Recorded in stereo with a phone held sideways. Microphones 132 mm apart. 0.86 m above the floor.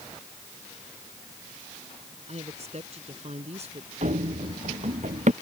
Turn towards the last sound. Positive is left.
turn(degrees=-60)  # may be behind; listen again after turning